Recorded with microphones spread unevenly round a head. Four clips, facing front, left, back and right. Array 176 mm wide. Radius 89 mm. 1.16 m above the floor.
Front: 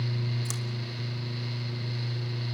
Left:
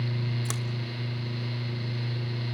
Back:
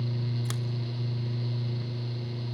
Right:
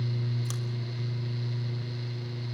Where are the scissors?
105° left, 1.2 m.